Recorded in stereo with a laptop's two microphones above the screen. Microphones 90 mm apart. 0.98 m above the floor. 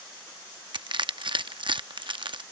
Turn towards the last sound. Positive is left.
turn(degrees=-60)  # may be behind; listen again after turning